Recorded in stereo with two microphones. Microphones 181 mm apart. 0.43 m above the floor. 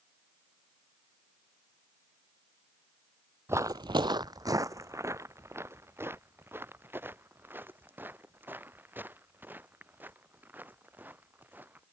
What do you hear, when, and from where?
3.5 s footsteps: 15° right (ahead or behind); by 11.8 s 10° right (ahead or behind)